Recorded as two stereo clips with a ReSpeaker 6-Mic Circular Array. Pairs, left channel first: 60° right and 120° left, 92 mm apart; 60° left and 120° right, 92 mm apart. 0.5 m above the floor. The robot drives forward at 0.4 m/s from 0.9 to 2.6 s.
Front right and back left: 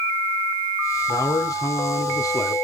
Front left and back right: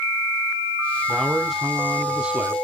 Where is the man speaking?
25° right, 1.1 m; by 2.5 s 60° right, 0.8 m.